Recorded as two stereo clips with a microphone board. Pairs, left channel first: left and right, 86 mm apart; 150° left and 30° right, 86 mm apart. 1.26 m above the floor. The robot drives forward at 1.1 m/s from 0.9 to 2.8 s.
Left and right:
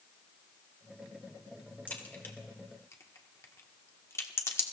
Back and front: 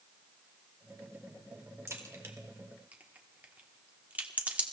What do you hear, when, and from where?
1.9 s a crack: 20° left, 2 m; by 4.6 s 40° left, 1.4 m